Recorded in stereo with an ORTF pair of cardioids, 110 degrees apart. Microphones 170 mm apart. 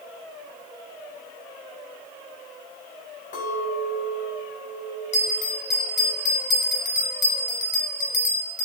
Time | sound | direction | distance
3.3 | a clink | 55° left | 5 m
5.1 | a bell | 45° left | 2.5 m